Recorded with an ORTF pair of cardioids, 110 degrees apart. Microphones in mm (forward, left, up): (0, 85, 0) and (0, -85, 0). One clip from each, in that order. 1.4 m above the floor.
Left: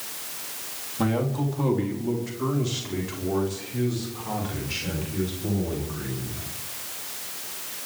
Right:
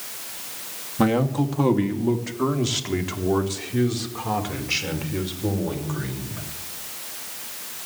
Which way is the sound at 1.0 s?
35° right.